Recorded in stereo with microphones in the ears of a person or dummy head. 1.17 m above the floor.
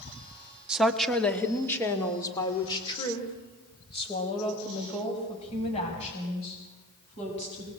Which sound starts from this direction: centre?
A woman speaking, at 0.7 s.